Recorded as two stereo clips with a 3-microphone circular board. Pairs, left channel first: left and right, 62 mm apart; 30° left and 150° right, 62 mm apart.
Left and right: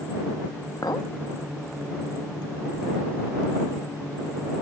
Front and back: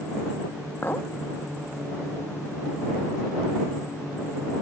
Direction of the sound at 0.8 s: 85° left.